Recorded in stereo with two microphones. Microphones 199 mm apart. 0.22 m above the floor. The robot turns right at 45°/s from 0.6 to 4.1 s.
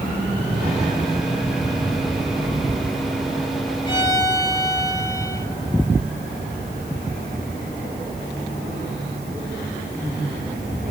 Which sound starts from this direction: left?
A violin, at 3.9 s.